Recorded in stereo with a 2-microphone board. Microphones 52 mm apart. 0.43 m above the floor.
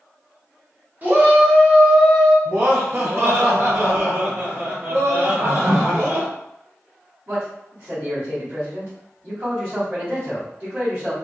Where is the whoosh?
10° right (ahead or behind), 0.5 m.